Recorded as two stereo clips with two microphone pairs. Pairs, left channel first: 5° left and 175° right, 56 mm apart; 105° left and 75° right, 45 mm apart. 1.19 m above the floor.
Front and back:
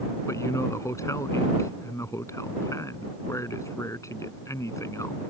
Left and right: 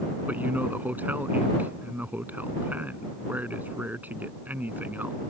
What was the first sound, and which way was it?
A man speaking, 20° right.